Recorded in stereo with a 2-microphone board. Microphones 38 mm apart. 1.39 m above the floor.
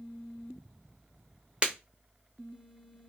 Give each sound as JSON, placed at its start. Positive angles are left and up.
{"t": 1.6, "sound": "breaking glass", "side_deg": -25, "distance_m": 0.8}